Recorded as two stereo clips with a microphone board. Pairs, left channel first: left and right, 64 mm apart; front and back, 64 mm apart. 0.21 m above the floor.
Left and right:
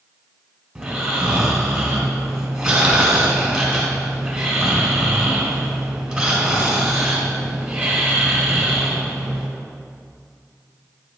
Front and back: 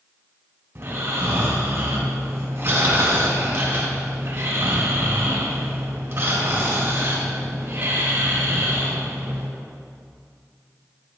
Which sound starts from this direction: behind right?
Snoring, at 0.8 s.